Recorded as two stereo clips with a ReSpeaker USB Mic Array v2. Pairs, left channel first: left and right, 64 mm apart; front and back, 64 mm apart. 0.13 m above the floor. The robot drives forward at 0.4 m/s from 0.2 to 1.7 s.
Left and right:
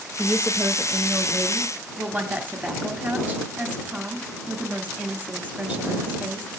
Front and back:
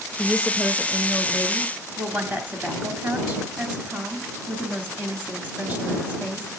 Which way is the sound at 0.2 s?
105° right.